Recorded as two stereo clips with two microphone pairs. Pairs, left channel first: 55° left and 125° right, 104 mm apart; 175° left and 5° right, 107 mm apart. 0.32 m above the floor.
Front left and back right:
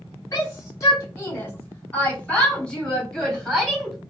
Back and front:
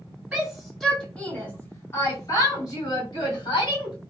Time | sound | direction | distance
0.3 | a shout | 65° left | 1.3 m